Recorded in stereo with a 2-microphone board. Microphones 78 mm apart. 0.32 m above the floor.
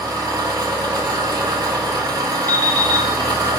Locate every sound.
0.0 s an engine running: 60° right (ahead or behind), 0.8 m
2.5 s an alarm clock: 30° left (ahead or behind), 0.7 m